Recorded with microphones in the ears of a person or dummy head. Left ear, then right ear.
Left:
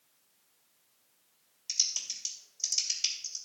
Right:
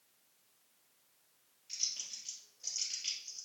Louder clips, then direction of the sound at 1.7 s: Left 8 dB; 80° left.